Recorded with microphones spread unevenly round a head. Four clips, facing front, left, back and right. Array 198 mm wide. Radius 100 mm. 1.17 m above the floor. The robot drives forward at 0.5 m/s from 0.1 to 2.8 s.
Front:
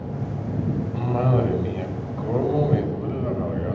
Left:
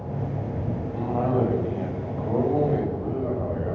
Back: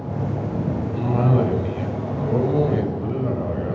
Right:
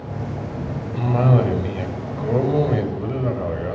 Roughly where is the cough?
Right.